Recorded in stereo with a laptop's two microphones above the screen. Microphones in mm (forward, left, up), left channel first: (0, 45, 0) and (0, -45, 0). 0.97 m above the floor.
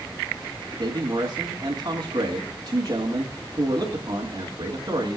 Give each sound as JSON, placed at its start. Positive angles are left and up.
{"t": 0.8, "sound": "a man speaking", "side_deg": -45, "distance_m": 2.5}